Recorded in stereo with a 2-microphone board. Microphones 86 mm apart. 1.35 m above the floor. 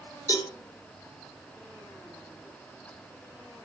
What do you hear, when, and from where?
0.3 s a cowbell: 45° left (ahead or behind), 1.3 m